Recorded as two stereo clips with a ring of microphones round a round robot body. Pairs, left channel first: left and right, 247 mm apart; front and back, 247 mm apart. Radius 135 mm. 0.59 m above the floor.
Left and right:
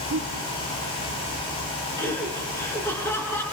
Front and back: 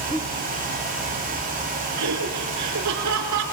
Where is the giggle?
90° right, 1.9 m.